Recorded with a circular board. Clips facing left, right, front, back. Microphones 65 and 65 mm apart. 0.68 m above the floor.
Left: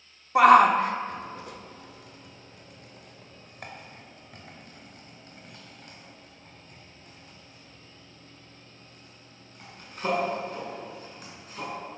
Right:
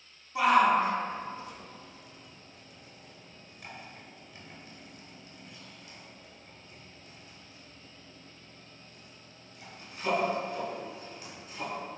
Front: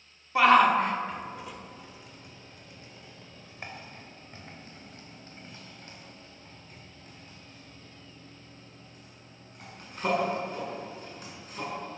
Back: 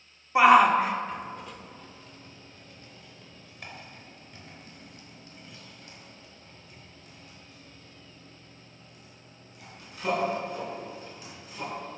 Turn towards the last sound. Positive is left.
turn(degrees=45)